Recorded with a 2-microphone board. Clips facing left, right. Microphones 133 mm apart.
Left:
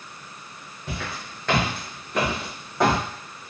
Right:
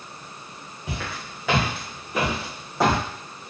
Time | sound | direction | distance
0.9 | footsteps | 5° right (ahead or behind) | 1.2 m